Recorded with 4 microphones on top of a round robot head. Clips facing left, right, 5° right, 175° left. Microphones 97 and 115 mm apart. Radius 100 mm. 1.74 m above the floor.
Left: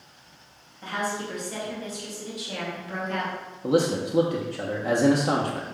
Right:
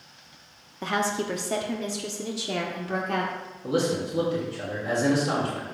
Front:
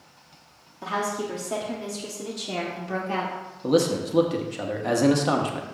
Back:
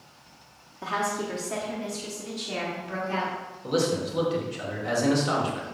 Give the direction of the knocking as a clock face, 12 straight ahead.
No knocking in this recording.